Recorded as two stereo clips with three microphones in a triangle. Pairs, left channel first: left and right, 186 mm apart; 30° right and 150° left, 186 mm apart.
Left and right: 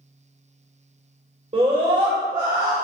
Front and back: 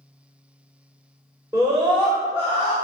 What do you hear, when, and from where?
1.5 s a scream: 140° right, 2.5 m; by 2.7 s 160° right, 3 m